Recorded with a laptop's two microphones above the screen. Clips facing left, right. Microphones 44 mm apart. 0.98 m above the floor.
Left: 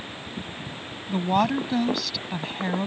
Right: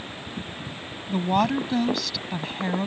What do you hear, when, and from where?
1.1 s a woman speaking: 5° left (ahead or behind)